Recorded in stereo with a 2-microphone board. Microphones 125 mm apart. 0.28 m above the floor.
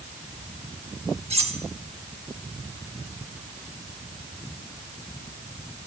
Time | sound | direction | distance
1.3 | cutlery clinking | 60° right (ahead or behind) | 1.0 m